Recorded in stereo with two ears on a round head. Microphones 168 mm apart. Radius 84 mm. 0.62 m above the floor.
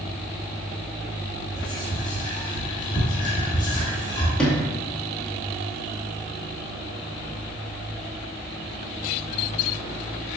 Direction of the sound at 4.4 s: 5° left (ahead or behind).